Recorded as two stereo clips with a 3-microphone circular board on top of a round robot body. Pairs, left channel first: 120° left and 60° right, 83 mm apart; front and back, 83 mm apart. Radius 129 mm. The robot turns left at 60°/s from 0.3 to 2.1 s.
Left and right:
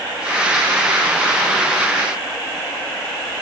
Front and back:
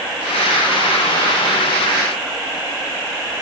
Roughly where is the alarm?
I don't hear an alarm.